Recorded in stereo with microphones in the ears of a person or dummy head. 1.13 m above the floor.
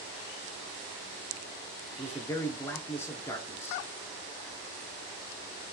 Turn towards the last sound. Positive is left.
turn(degrees=10)  # may be behind; listen again after turning